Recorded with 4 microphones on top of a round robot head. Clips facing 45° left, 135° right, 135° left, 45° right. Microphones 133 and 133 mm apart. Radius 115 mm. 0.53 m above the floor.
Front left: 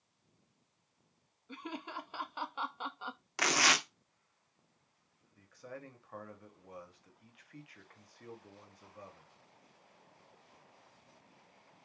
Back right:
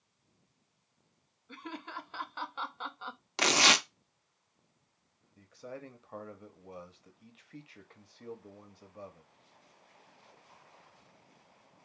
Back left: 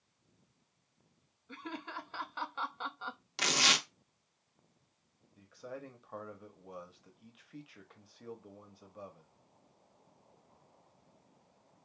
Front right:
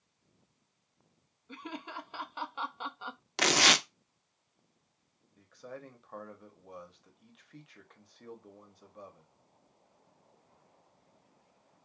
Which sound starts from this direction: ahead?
Laughter, at 1.5 s.